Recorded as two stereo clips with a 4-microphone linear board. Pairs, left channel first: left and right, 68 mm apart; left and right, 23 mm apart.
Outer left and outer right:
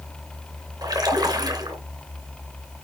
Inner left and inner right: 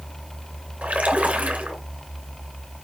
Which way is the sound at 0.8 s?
75° right (ahead or behind).